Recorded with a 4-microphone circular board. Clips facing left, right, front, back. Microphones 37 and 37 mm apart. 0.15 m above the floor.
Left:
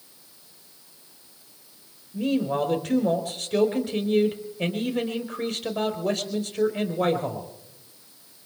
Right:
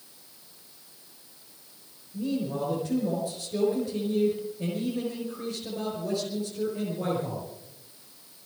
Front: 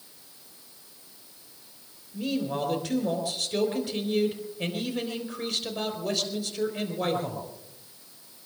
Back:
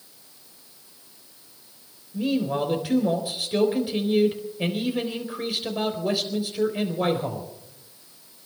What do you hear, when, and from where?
2.1 s a man speaking: 105° left, 4.5 m